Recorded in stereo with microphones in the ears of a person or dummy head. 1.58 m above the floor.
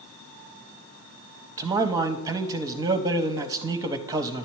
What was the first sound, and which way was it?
A man speaking, 20° right (ahead or behind).